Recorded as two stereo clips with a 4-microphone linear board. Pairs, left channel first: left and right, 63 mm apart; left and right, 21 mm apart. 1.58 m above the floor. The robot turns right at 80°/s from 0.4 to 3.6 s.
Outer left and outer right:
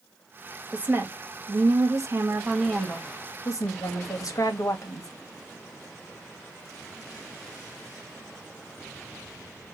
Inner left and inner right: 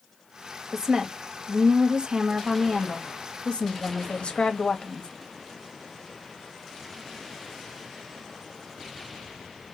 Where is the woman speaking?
165° right, 2.5 m; by 5.1 s 65° left, 2.5 m.